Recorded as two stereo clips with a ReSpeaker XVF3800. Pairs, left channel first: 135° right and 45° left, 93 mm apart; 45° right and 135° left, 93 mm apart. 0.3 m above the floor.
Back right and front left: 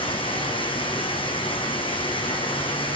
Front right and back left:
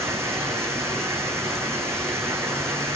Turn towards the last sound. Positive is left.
turn(degrees=-160)